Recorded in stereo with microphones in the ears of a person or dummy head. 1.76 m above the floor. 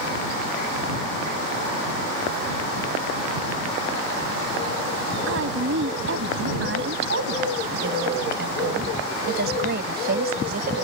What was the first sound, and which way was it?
A woman speaking, 80° right.